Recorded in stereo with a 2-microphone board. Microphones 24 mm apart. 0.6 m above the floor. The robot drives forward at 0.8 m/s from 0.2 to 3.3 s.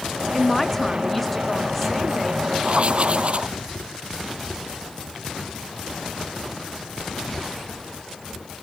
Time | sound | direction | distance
0.3 | a man speaking | 10° left (ahead or behind) | ?
2.6 | writing | 45° right (ahead or behind) | ?